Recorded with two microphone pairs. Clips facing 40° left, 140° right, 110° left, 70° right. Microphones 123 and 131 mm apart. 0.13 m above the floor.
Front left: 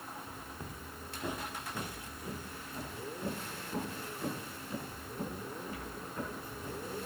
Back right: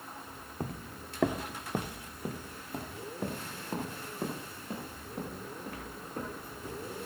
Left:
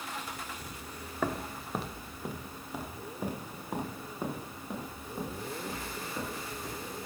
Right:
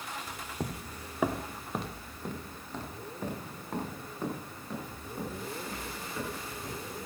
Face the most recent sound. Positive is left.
turn(degrees=-175)